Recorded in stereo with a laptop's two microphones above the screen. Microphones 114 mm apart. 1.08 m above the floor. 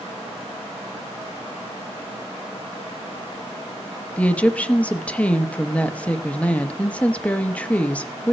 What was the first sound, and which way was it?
A woman speaking, 10° left (ahead or behind).